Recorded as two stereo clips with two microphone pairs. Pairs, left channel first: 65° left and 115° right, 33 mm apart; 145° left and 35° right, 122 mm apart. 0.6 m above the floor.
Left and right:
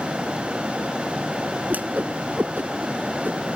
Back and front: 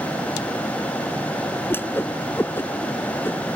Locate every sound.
1.7 s a whoosh: 140° right